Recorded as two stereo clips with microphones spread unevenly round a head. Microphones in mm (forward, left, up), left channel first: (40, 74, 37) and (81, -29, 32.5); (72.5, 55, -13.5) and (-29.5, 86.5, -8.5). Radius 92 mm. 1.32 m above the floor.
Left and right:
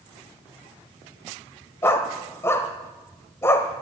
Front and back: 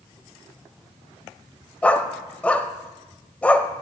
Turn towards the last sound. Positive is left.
turn(degrees=60)